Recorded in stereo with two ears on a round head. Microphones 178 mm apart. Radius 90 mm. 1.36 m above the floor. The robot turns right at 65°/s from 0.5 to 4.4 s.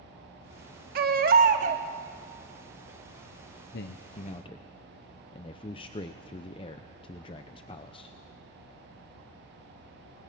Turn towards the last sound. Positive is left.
turn(degrees=150)